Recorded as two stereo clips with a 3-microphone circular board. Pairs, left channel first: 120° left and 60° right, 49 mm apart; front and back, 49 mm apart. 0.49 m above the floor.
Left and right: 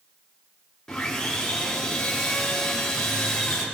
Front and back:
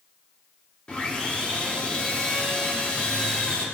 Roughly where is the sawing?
Ahead left.